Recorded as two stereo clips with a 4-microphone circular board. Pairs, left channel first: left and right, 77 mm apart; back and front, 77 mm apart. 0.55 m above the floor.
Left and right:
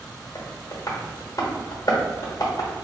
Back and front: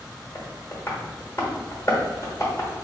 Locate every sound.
0.3 s tapping: 130° left, 1.1 m